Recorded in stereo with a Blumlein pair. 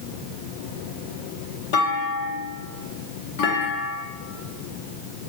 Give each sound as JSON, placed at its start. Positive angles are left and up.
{"t": 1.7, "sound": "a clunk", "azimuth_deg": 50, "distance_m": 1.1}